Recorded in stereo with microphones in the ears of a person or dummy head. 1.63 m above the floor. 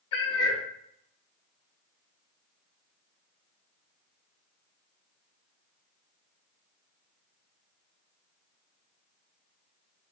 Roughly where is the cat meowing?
Left.